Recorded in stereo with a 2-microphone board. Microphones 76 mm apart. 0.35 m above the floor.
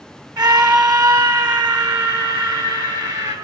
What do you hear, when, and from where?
0.4 s a scream: 55° right (ahead or behind), 2.5 m; by 3.4 s 65° right (ahead or behind), 5 m